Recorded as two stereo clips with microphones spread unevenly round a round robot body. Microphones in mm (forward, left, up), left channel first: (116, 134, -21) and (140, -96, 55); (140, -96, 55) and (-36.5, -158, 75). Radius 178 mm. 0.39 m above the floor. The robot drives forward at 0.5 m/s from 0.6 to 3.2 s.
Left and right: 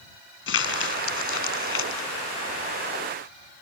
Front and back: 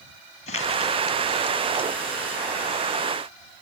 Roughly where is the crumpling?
Left.